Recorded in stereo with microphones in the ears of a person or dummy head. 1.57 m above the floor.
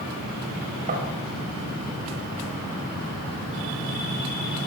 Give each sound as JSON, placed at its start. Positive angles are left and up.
{"t": 0.9, "sound": "tapping", "side_deg": -45, "distance_m": 7.0}